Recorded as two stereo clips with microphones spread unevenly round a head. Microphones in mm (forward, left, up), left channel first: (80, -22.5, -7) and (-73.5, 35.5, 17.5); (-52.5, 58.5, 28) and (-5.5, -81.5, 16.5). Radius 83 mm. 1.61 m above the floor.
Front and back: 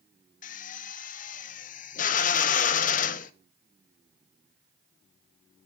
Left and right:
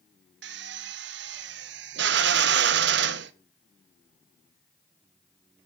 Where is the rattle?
No rattle in this recording.